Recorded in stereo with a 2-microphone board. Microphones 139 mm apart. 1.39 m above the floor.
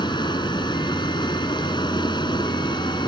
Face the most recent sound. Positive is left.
turn(degrees=35)  # may be behind; listen again after turning